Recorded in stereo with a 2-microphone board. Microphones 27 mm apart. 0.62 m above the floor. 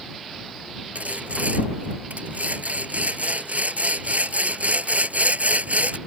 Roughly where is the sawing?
Right.